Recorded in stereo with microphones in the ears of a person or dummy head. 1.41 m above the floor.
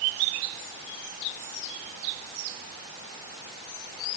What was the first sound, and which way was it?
Only background noise.